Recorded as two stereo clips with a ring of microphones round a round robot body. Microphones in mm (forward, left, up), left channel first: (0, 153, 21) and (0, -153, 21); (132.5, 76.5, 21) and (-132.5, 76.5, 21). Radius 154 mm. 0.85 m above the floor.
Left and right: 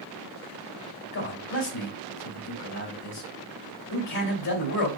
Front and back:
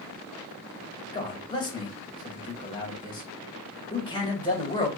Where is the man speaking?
75° left, 1.9 m.